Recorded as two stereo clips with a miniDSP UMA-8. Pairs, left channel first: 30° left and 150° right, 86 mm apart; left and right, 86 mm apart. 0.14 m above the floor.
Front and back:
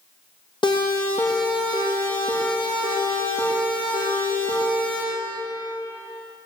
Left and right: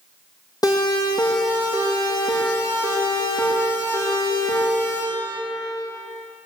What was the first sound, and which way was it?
A siren, 50° left.